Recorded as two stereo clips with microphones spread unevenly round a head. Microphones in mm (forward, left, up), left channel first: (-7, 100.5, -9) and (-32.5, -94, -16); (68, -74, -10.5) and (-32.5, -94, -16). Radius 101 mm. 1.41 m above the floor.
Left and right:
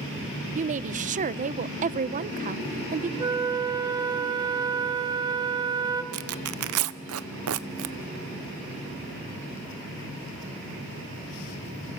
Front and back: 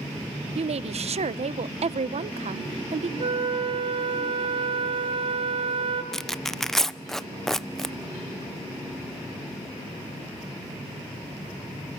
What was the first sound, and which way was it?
A woman speaking, 150° right.